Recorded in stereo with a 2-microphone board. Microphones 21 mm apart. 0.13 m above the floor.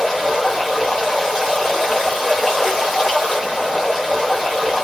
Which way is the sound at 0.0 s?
5° left (ahead or behind).